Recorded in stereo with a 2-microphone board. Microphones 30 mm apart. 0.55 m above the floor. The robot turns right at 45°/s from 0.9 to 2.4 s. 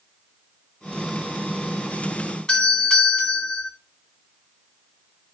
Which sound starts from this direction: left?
A doorbell, at 2.5 s.